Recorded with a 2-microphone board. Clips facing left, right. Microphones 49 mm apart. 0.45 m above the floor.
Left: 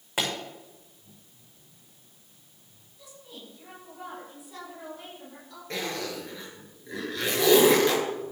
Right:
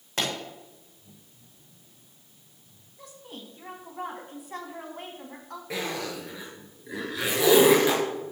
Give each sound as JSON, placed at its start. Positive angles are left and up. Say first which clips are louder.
{"t": 0.2, "sound": "a pop", "louder": "even", "side_deg": 10, "distance_m": 5.0}
{"t": 3.0, "sound": "a woman speaking", "louder": "right 3 dB", "side_deg": -60, "distance_m": 4.0}
{"t": 5.7, "sound": "a zipper", "louder": "right 1 dB", "side_deg": -10, "distance_m": 4.0}